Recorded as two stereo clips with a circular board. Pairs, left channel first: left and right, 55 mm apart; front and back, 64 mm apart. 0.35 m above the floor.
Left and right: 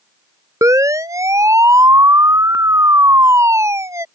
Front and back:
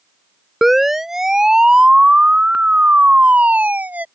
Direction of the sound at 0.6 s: 90° right.